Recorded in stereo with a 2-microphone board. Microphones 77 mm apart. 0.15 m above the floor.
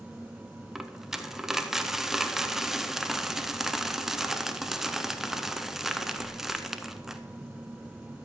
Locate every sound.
0.8 s a dropped coin: 5° right (ahead or behind), 0.6 m